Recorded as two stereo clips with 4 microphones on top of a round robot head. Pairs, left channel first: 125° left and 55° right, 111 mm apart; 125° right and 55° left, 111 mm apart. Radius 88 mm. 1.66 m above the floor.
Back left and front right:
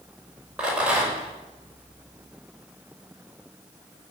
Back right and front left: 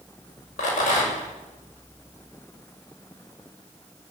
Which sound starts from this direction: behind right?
A rattle, at 0.6 s.